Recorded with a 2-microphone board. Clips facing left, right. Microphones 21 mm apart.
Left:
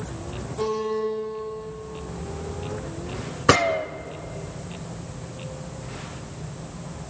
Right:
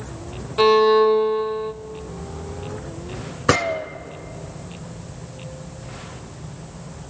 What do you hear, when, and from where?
0.6 s a violin: 85° right, 0.8 m
3.5 s a gunshot: 15° left (ahead or behind), 1.0 m